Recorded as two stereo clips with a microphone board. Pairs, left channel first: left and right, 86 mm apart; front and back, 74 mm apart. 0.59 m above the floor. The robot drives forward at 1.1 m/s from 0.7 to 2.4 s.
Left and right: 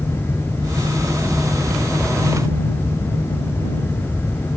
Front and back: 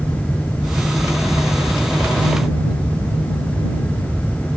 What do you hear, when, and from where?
Only background noise.